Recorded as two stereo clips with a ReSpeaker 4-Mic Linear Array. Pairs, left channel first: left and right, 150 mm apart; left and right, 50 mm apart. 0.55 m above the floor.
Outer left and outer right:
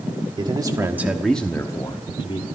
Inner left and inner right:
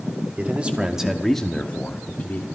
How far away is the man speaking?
About 1.4 m.